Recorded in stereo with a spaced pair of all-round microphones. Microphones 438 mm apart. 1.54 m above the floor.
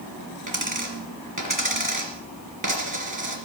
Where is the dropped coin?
45° right (ahead or behind), 3 m.